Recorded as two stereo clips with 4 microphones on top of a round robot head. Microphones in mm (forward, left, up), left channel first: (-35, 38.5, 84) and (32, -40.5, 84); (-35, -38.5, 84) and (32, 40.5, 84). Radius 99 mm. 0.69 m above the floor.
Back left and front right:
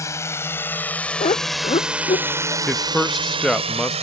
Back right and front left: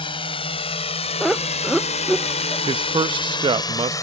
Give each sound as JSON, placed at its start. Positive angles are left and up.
{"t": 0.0, "sound": "a drone", "azimuth_deg": -170}
{"t": 1.2, "sound": "laughter", "azimuth_deg": 140}
{"t": 2.7, "sound": "a man speaking", "azimuth_deg": 45}